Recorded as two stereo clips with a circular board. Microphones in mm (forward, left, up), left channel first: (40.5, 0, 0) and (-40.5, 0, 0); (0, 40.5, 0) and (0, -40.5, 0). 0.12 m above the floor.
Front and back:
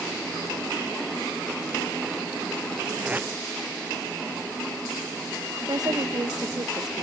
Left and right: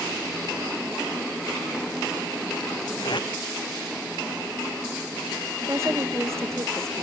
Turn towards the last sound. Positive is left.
turn(degrees=-145)